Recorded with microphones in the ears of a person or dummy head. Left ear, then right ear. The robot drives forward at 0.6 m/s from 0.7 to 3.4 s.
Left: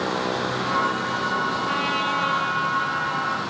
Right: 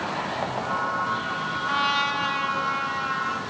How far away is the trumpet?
About 1.5 m.